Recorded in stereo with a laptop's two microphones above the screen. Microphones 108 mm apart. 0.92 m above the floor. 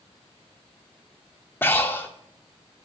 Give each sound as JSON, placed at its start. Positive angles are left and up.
{"t": 1.6, "sound": "breathing", "side_deg": 20, "distance_m": 1.9}